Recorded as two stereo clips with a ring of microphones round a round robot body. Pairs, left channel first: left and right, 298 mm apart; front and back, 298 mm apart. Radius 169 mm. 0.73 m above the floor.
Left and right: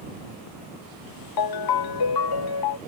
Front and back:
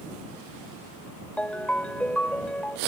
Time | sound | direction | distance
1.4 | a ringtone | 85° left | ?